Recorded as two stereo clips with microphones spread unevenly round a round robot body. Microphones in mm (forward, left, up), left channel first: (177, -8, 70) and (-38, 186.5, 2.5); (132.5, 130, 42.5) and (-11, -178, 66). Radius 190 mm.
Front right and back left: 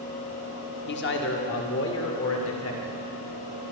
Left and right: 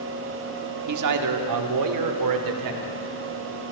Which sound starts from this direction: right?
A man speaking, at 0.9 s.